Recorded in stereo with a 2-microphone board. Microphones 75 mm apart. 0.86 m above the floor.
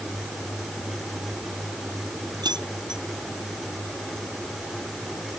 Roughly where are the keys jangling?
Right.